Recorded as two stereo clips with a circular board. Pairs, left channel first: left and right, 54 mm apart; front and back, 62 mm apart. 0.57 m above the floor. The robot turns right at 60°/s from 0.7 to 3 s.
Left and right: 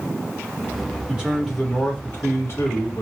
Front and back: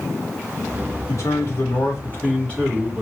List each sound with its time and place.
1.1 s a man speaking: 20° right, 2.5 m; by 3.0 s 95° left, 2.5 m